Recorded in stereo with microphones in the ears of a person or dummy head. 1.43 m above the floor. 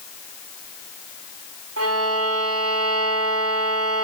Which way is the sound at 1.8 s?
85° right.